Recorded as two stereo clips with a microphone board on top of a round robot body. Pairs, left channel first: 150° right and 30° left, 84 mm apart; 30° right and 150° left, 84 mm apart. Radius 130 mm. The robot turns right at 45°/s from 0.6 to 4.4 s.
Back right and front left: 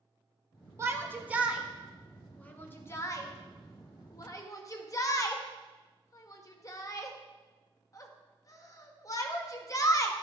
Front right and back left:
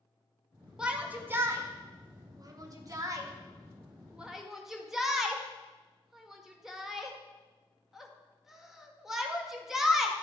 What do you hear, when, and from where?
0.8 s a shout: 75° left, 1.8 m; by 10.1 s 125° right, 1.8 m